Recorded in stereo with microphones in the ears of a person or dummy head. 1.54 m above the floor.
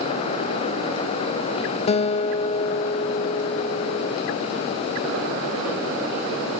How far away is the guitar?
About 0.7 m.